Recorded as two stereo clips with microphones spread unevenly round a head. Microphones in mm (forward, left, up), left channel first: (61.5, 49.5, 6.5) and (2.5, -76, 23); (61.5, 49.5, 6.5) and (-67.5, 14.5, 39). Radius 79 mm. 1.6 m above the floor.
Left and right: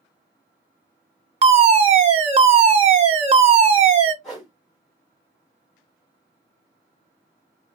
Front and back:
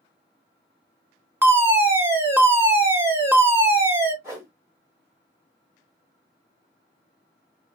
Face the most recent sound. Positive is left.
turn(degrees=160)